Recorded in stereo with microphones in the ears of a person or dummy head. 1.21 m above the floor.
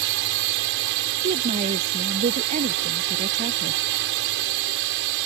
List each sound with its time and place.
0.0 s a drone: 65° right (ahead or behind)
1.2 s a woman speaking: 35° right (ahead or behind)